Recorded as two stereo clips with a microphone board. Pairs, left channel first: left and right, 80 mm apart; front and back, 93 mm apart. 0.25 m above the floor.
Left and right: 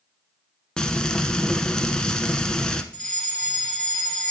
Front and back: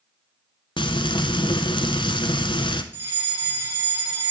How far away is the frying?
About 0.8 m.